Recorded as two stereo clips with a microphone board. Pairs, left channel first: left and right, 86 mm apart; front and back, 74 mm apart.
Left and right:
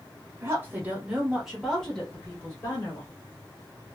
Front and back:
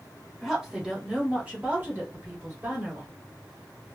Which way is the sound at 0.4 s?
95° right.